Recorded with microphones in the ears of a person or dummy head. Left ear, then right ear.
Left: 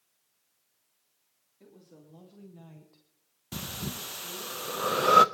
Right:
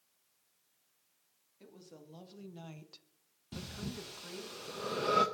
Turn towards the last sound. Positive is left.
turn(degrees=50)  # may be behind; listen again after turning